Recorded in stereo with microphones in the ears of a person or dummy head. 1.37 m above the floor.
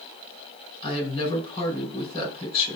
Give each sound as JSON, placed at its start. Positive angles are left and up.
{"t": 0.8, "sound": "a woman speaking", "side_deg": 30, "distance_m": 5.0}